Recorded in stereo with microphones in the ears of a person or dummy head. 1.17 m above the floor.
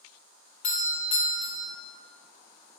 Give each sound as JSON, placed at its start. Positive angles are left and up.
{"t": 0.6, "sound": "a doorbell", "side_deg": 30, "distance_m": 1.3}